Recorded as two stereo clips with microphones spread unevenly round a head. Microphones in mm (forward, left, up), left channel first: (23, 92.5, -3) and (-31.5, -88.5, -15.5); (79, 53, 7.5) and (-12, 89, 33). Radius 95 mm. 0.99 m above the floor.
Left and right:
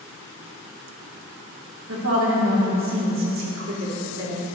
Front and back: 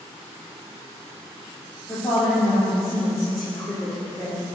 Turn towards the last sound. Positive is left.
turn(degrees=-90)